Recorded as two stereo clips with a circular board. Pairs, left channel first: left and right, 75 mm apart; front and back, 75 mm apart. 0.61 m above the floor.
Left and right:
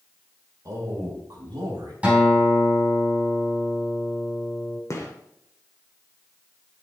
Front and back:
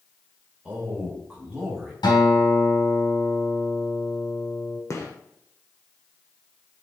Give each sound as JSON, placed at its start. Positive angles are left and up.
{"t": 0.7, "sound": "a man speaking", "azimuth_deg": -110, "distance_m": 1.6}
{"t": 2.0, "sound": "a guitar", "azimuth_deg": -20, "distance_m": 3.5}
{"t": 4.9, "sound": "a gunshot", "azimuth_deg": 45, "distance_m": 1.3}